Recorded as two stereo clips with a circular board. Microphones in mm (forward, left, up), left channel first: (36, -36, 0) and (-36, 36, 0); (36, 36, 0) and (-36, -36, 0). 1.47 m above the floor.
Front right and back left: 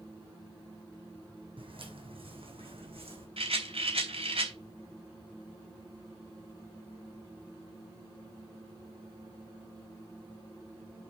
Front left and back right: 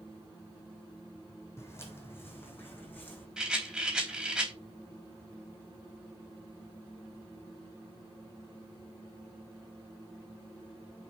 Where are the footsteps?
110° left, 4.5 m; by 3.3 s 115° left, 5.5 m.